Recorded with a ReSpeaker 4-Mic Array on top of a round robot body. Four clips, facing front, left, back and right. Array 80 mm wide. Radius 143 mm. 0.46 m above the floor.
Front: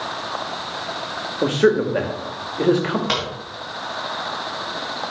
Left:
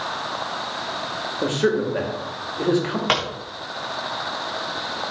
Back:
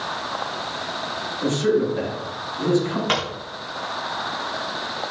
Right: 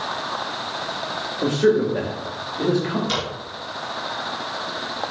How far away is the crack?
About 4 m.